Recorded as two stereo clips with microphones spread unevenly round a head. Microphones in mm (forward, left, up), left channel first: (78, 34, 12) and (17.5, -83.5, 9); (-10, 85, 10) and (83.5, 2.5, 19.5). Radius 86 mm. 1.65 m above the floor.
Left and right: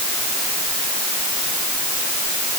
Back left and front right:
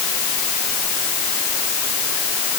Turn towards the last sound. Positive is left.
No sound to turn to.